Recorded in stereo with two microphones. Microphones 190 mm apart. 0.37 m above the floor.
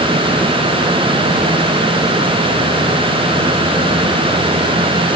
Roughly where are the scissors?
I don't hear scissors.